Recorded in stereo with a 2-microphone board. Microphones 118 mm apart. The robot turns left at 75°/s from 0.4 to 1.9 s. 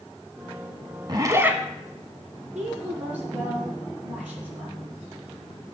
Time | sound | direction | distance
1.1 | a zipper | 130° right | 0.8 m
2.5 | a woman speaking | 10° right (ahead or behind) | 3.5 m